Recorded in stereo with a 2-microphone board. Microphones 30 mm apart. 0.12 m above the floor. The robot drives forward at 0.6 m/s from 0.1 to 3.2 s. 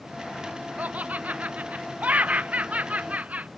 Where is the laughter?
55° right (ahead or behind); by 3.5 s 50° right (ahead or behind).